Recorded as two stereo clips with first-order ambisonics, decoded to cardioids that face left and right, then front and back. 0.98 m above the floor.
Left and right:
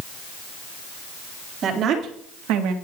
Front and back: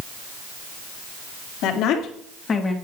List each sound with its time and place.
1.6 s a woman speaking: 35° right, 2.5 m; by 2.7 s 80° right, 1.7 m